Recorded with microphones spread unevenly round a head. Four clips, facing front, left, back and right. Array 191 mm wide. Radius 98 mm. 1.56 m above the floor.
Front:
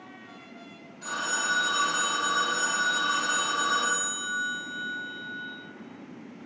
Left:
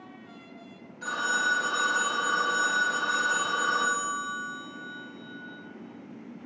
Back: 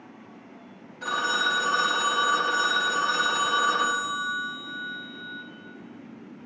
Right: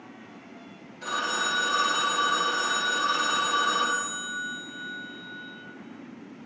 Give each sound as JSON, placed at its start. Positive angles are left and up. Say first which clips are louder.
{"t": 1.0, "sound": "a phone ringing", "louder": "left 1 dB, back 5 dB", "azimuth_deg": 175, "distance_m": 1.3}